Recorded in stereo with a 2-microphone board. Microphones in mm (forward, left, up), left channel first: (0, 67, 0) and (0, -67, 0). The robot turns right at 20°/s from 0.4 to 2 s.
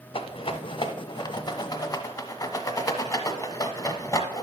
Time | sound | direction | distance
0.1 | a rattle | 40° left (ahead or behind) | 0.8 m